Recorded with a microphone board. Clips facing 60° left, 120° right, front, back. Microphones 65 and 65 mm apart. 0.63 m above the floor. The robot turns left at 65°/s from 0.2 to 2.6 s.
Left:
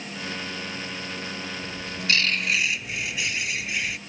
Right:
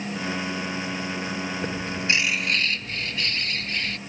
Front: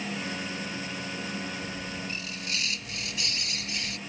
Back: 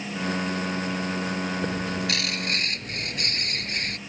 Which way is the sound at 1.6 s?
160° right.